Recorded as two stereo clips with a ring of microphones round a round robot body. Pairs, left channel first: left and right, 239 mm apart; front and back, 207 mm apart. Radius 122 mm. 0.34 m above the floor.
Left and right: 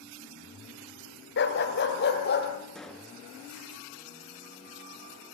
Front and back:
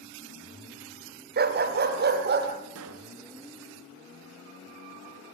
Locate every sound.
1.4 s a dog barking: 135° left, 1.7 m; by 2.5 s 140° left, 3.5 m
2.8 s a pop: straight behind, 1.6 m